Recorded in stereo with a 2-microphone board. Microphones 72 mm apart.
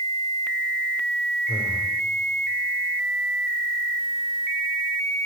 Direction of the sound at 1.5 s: 40° left (ahead or behind).